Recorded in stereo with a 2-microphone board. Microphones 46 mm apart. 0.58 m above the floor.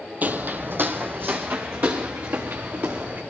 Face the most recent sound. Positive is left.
turn(degrees=-60)  # may be behind; listen again after turning